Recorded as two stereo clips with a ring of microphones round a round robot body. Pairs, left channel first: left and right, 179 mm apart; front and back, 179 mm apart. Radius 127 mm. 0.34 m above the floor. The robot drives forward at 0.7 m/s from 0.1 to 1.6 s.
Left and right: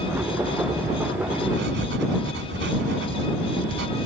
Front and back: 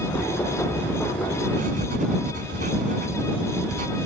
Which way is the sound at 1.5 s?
125° right.